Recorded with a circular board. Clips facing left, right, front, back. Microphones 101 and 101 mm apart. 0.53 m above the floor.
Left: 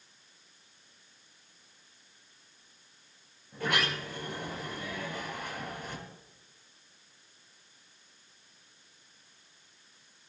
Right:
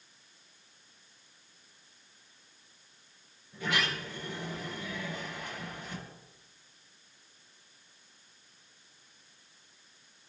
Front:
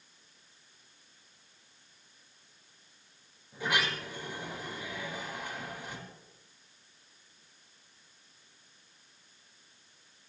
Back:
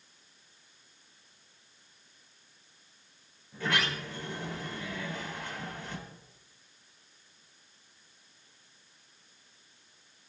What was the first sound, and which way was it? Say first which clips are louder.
A sliding door: left 2 dB, even; 75° left.